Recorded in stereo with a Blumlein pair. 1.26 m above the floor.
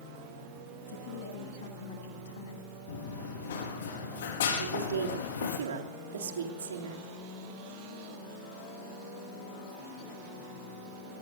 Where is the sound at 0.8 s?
60° left, 9 m.